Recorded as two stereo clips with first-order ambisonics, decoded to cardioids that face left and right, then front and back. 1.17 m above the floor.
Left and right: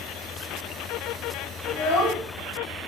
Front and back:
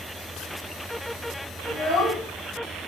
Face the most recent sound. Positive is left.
turn(degrees=60)